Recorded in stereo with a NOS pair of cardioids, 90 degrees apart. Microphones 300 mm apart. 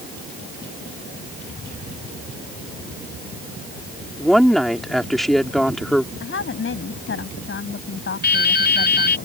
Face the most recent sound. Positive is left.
turn(degrees=35)